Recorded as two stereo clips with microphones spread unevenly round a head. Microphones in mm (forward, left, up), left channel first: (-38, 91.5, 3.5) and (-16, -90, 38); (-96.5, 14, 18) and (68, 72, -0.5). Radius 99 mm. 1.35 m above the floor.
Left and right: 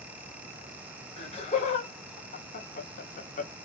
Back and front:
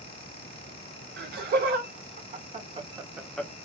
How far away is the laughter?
About 1.8 m.